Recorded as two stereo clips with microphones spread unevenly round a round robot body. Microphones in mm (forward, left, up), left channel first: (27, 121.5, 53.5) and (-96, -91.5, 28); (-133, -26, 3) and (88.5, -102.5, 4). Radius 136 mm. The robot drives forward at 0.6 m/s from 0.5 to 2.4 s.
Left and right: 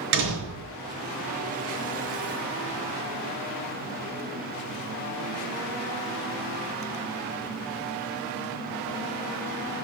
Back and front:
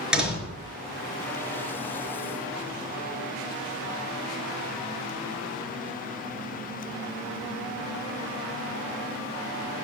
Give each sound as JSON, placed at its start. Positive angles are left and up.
{"t": 0.1, "sound": "a door slam", "azimuth_deg": -105, "distance_m": 4.5}